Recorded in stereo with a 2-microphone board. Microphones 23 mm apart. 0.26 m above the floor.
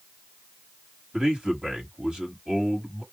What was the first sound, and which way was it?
A man speaking, 25° right (ahead or behind).